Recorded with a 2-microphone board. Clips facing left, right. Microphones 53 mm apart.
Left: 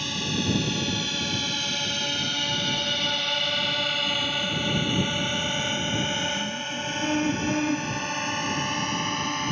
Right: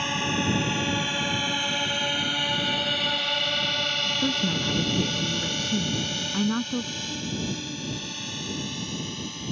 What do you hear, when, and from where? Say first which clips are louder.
0.0 s a drone: right 3 dB; 30° right (ahead or behind); by 9.5 s 55° left (ahead or behind)
4.2 s a woman speaking: right 1 dB; 80° right
7.0 s a car horn: left 7 dB; 75° left (ahead or behind)